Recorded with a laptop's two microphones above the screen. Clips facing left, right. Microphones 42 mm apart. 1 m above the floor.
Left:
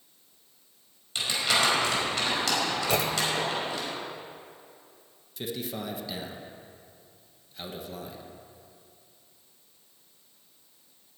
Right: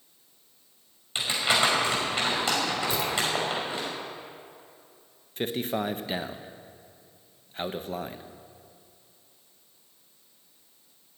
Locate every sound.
1.1 s crumpling: 25° right (ahead or behind), 5 m
2.9 s a clunk: 65° left (ahead or behind), 1.4 m
5.4 s a man speaking: 40° right (ahead or behind), 0.7 m